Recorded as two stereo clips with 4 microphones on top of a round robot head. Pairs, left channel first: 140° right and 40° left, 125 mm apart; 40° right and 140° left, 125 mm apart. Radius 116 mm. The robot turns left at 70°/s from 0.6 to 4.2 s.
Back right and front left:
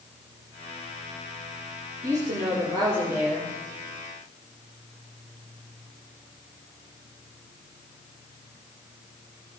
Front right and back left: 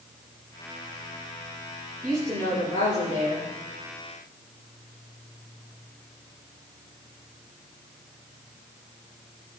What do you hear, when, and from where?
2.0 s a woman speaking: 50° left, 2.5 m; by 3.5 s 55° right, 2.5 m